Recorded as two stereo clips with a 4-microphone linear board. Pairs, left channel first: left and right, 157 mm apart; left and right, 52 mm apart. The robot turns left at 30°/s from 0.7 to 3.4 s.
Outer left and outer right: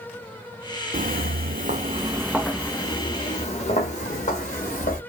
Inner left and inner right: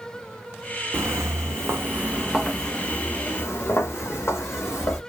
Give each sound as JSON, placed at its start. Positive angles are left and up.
{"t": 0.9, "sound": "footsteps", "side_deg": -60, "distance_m": 0.6}